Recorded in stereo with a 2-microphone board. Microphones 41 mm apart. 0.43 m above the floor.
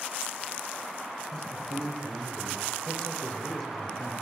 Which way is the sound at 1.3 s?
20° left (ahead or behind).